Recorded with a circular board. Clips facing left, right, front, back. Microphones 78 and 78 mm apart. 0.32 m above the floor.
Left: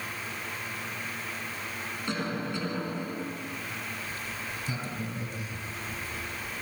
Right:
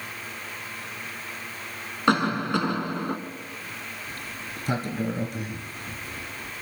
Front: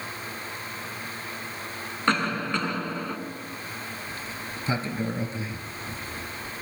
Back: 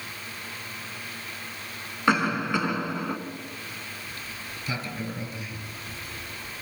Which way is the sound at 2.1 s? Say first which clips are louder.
Right 11 dB, back 2 dB; 100° right.